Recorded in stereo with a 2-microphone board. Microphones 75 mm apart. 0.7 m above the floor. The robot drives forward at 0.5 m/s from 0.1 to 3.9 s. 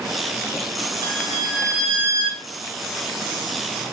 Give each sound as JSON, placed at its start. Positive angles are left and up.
{"t": 1.0, "sound": "a violin", "side_deg": -45, "distance_m": 2.5}